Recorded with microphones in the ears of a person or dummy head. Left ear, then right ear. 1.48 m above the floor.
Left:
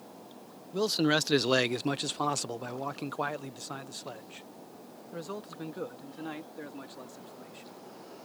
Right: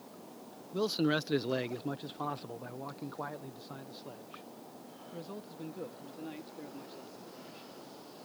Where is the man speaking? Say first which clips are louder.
Left 4 dB; 10° left (ahead or behind); by 7.7 s 40° left (ahead or behind).